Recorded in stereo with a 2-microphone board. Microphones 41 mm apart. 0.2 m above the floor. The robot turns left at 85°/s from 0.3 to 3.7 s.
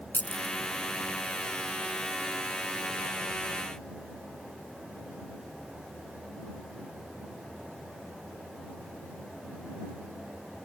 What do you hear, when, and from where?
0.1 s keys jangling: 45° left (ahead or behind); by 0.6 s 60° left (ahead or behind)